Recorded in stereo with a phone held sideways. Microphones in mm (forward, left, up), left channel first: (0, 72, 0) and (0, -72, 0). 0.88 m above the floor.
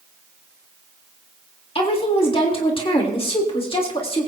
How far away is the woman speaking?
About 1.7 m.